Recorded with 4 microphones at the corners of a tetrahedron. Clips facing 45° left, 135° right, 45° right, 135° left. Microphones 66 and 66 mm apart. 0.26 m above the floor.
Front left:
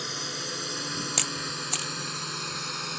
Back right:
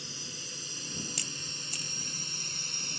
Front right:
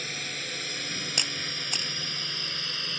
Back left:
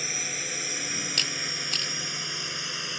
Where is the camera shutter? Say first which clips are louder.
Front left 10 dB, back left 1 dB; 25° left.